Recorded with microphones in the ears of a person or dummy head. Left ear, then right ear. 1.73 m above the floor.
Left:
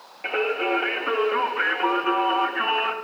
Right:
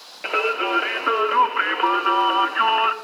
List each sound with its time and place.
0.2 s singing: 45° right (ahead or behind), 0.6 m